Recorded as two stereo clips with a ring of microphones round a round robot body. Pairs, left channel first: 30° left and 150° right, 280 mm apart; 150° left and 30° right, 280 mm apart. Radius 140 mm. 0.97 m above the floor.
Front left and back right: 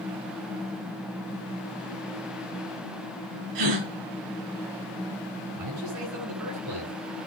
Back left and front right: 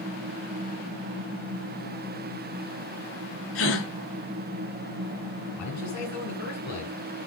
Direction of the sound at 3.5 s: 165° right.